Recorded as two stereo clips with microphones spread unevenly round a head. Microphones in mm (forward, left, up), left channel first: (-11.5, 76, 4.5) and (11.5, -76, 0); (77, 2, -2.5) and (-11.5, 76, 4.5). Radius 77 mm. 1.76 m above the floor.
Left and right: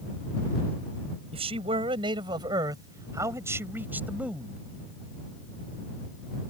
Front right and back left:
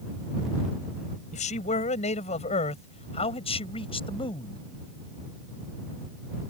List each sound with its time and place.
1.3 s a man speaking: 30° right; by 4.6 s 5° left